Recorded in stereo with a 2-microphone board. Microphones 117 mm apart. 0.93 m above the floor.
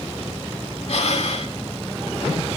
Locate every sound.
0.9 s breathing: 70° left (ahead or behind), 1.9 m